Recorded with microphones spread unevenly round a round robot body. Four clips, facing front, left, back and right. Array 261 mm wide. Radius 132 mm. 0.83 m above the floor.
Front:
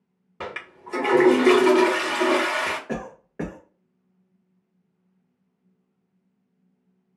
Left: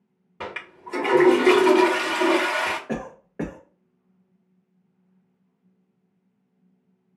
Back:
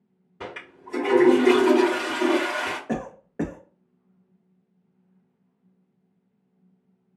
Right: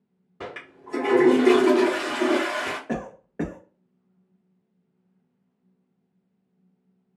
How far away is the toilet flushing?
About 1.3 m.